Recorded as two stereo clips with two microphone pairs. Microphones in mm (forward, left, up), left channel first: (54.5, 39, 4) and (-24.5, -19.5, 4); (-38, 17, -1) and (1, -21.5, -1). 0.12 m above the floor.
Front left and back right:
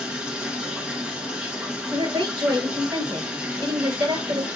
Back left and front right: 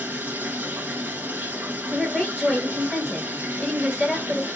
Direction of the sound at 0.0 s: 70° right.